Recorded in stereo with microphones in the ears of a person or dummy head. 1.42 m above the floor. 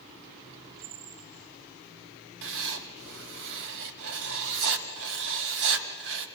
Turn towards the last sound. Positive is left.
turn(degrees=-60)  # may be behind; listen again after turning